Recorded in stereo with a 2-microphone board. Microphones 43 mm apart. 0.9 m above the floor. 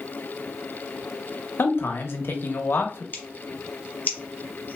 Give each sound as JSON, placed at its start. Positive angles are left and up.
{"t": 1.6, "sound": "a man speaking", "side_deg": 55, "distance_m": 0.8}
{"t": 3.1, "sound": "scissors", "side_deg": 40, "distance_m": 1.0}